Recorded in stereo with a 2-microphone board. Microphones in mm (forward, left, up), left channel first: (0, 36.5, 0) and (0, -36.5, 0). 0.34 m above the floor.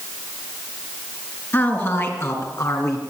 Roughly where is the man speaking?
Left.